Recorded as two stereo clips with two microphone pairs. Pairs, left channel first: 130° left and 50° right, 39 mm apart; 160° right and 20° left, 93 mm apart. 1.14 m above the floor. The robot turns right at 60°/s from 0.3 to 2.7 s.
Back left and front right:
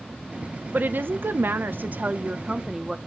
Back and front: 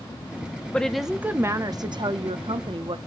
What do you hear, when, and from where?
0.7 s a woman speaking: 85° right, 0.6 m; by 3.0 s 30° left, 0.6 m